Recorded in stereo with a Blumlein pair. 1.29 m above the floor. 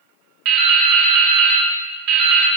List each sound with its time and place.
0.5 s dripping: 40° right, 1.0 m